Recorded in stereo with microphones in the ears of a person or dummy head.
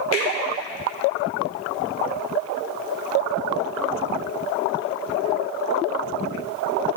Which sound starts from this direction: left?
A finger snap, at 0.1 s.